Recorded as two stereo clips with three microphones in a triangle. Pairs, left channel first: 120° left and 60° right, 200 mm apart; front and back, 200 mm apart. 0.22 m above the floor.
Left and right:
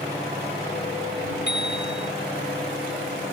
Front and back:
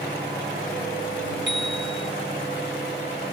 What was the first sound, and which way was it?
A bicycle bell, 155° left.